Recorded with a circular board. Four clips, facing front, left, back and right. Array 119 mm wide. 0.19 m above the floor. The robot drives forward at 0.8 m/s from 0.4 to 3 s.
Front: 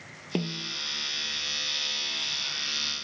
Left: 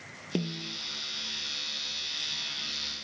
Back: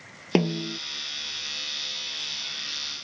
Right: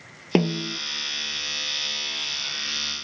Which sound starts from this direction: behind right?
A snare drum, at 0.3 s.